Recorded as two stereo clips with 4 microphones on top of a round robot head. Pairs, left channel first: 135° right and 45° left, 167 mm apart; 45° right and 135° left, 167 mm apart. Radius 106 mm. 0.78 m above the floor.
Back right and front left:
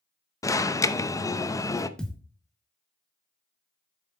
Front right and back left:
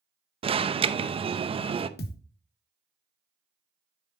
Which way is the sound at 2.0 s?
50° right.